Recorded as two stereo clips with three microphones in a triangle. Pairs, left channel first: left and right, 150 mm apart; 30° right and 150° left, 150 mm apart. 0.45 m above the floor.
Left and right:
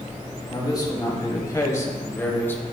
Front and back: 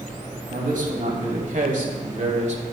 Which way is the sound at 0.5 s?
150° left.